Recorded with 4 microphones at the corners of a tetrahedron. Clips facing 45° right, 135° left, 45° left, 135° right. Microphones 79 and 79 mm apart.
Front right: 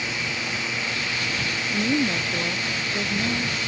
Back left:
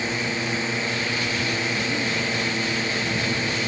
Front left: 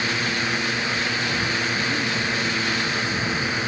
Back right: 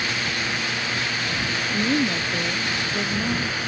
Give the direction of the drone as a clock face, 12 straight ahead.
9 o'clock.